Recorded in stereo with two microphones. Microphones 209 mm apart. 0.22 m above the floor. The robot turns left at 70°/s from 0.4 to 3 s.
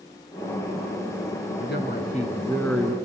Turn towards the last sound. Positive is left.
turn(degrees=-15)